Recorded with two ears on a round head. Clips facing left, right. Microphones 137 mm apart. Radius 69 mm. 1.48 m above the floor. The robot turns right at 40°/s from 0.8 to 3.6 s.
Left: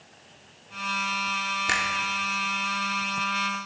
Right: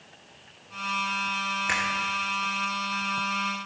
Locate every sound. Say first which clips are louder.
1.7 s a finger snap: left 1 dB; 45° left (ahead or behind), 3 m; by 1.9 s 35° left (ahead or behind), 3 m